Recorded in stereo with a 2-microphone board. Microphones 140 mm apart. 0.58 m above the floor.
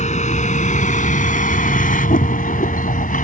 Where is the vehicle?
60° left (ahead or behind); by 3.2 s 80° left.